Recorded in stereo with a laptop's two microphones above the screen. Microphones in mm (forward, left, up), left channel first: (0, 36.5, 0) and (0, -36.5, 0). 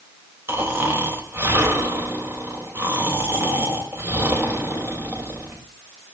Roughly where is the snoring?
Right.